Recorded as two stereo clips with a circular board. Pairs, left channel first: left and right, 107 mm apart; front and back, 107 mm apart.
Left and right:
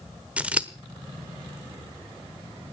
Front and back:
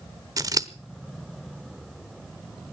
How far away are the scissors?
About 1.0 m.